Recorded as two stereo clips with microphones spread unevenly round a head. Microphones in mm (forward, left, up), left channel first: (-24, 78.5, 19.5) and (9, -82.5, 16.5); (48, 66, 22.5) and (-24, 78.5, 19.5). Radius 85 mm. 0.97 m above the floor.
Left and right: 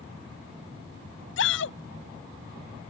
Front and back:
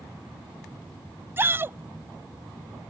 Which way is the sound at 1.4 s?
110° left.